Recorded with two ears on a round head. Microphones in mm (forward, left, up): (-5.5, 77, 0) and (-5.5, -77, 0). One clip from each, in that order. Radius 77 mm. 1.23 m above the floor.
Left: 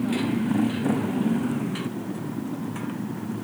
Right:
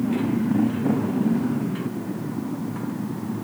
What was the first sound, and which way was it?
A motorcycle, 80° left.